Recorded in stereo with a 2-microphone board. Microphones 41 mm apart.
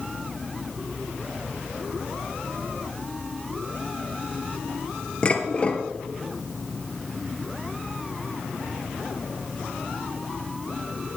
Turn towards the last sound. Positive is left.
turn(degrees=30)  # may be behind; listen again after turning